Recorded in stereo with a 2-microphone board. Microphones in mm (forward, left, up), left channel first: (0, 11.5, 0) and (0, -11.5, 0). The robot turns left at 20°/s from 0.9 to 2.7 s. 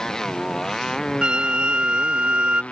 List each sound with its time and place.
0.0 s a motorcycle: 155° left; by 2.7 s 120° left
1.2 s a flute: 45° right (ahead or behind); by 2.6 s 60° right (ahead or behind)